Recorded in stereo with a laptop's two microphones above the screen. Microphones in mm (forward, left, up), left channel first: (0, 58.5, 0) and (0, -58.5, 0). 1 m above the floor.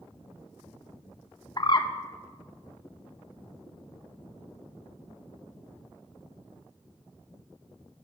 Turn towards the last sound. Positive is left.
turn(degrees=40)  # may be behind; listen again after turning